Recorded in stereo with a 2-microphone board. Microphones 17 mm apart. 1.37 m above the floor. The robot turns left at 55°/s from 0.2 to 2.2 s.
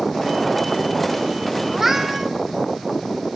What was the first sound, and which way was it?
A cat meowing, 15° right (ahead or behind).